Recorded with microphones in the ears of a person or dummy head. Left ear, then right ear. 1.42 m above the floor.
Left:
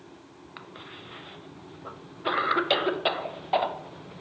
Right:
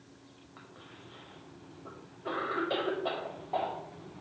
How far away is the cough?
About 0.5 m.